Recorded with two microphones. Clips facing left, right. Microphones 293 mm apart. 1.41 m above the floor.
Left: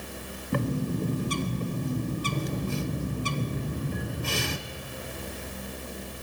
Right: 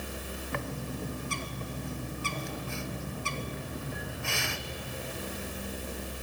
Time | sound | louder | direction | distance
0.5 | a bird | left 10 dB | 45° left (ahead or behind) | 0.6 m